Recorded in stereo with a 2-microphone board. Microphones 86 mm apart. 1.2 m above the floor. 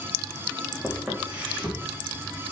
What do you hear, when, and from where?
0.8 s footsteps: 10° right (ahead or behind), 4 m; by 2.5 s 25° right (ahead or behind), 4 m